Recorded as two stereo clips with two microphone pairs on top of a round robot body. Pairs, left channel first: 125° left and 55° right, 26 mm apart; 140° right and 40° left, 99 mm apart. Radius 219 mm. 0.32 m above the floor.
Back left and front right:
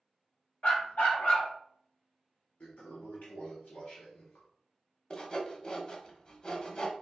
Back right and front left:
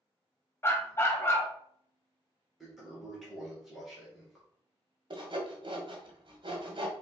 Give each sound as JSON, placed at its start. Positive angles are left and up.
{"t": 0.6, "sound": "a dog barking", "azimuth_deg": 155, "distance_m": 1.0}
{"t": 2.6, "sound": "a toilet flushing", "azimuth_deg": 125, "distance_m": 1.8}
{"t": 5.1, "sound": "sawing", "azimuth_deg": 70, "distance_m": 1.4}